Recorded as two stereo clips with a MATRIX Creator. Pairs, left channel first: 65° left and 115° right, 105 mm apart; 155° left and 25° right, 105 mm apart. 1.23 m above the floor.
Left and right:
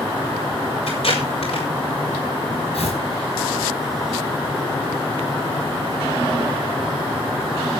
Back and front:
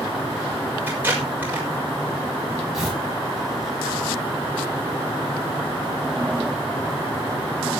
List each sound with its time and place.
0.9 s tape being pulled: 50° left, 5.5 m
2.7 s tearing paper: 65° left, 7.5 m